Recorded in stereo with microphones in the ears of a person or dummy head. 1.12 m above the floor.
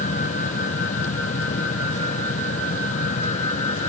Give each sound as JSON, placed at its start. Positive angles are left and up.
{"t": 0.0, "sound": "a fan", "side_deg": 40}